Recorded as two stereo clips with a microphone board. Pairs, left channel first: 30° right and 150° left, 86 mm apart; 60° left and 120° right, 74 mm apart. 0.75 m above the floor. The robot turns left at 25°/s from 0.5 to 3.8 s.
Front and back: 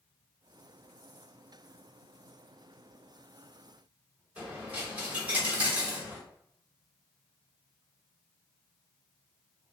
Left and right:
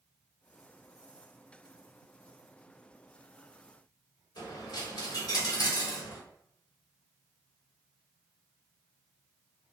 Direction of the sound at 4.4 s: 75° left.